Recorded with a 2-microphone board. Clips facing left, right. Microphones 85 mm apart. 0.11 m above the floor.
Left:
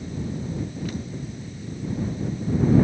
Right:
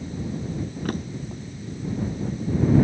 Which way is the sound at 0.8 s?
55° right (ahead or behind).